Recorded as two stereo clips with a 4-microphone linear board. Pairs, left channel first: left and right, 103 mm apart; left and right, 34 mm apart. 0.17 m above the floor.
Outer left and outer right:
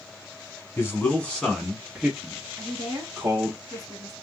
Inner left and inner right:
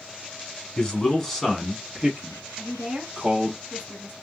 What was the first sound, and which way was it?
A man speaking, 25° left (ahead or behind).